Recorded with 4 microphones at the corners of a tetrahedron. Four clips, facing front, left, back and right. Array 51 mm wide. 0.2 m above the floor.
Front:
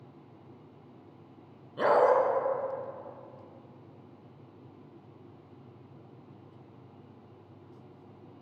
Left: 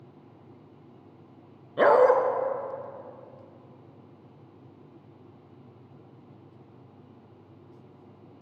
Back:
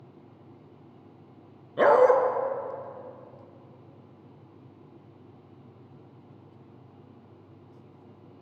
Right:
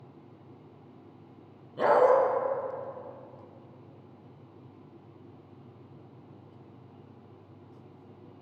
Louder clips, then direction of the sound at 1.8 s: Left 3 dB, back 5 dB; 125° left.